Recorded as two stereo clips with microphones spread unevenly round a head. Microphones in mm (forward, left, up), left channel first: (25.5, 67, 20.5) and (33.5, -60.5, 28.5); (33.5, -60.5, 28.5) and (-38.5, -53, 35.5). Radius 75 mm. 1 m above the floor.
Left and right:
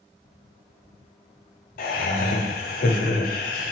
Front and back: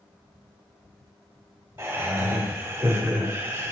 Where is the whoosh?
No whoosh in this recording.